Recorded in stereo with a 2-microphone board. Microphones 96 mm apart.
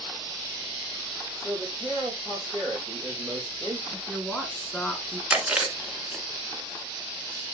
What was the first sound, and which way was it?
A man speaking, 5° left (ahead or behind).